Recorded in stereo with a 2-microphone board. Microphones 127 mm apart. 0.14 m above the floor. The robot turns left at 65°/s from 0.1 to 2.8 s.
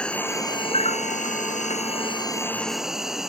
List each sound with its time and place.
0.0 s an insect: 175° left; by 3.3 s 5° right